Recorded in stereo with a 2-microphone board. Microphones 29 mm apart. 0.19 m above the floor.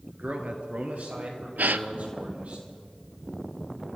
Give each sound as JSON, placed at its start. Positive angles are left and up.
{"t": 0.2, "sound": "a man speaking", "side_deg": -60, "distance_m": 2.5}
{"t": 1.6, "sound": "a gasp", "side_deg": -85, "distance_m": 0.6}